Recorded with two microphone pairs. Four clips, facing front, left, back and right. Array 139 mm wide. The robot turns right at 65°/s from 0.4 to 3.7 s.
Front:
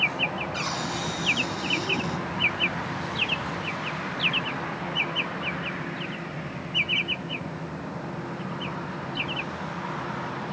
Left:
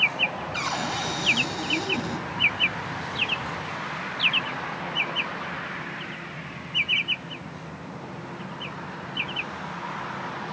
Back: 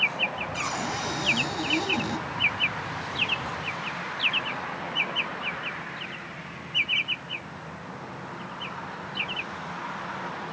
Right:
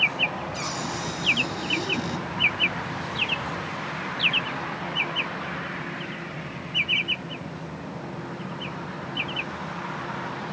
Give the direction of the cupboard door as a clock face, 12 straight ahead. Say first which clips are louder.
Left 2 dB, even; 9 o'clock.